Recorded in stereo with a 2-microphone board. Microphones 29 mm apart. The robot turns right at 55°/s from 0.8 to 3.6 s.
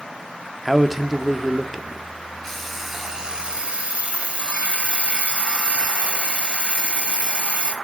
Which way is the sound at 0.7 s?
Centre (ahead or behind).